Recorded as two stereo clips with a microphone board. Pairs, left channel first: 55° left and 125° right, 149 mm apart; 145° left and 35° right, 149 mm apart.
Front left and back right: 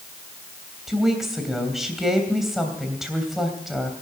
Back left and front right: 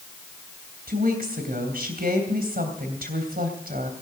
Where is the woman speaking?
35° right, 3 m.